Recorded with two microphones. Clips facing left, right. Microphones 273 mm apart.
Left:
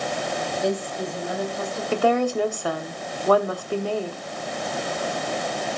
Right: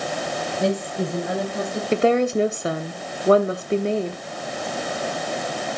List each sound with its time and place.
0.6 s a woman speaking: 75° right (ahead or behind), 9.5 m; by 1.8 s 70° right (ahead or behind), 8.5 m
1.9 s a woman speaking: 25° right (ahead or behind), 0.8 m